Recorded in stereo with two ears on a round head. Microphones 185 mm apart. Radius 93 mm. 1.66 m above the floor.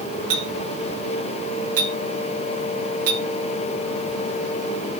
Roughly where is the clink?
Right.